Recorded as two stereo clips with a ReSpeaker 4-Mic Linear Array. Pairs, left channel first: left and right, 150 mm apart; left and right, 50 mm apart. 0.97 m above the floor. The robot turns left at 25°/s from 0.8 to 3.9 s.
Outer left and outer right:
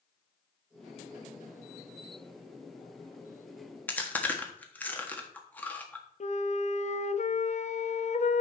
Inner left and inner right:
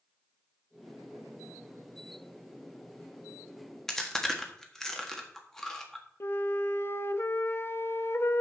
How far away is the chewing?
About 1.4 m.